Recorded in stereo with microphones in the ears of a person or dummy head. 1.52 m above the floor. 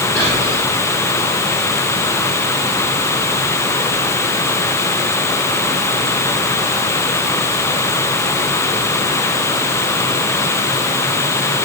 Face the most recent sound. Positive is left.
turn(degrees=10)  # may be behind; listen again after turning